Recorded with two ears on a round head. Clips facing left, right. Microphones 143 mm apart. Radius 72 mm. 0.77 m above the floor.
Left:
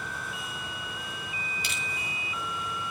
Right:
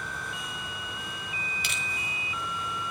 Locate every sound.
1.6 s crushing: 50° right (ahead or behind), 4.5 m